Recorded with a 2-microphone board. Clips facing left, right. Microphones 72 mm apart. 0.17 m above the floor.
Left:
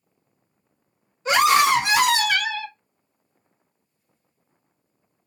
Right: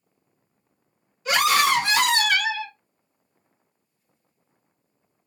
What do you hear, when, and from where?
1.2 s a scream: 30° left (ahead or behind), 1.4 m; by 2.7 s 10° right (ahead or behind), 1.2 m